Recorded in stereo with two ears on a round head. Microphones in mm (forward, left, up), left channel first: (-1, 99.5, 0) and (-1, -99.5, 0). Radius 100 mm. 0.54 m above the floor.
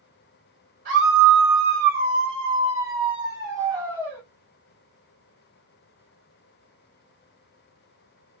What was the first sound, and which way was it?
A scream, 45° right (ahead or behind).